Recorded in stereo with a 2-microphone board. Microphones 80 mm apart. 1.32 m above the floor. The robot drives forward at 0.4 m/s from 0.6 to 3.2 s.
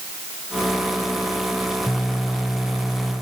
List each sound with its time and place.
Only background noise.